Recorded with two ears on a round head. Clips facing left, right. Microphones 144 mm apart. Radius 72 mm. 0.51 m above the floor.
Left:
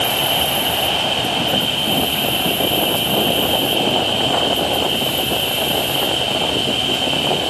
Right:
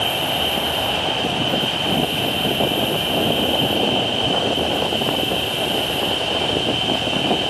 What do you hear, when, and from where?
0.0 s an insect: 55° left (ahead or behind), 3 m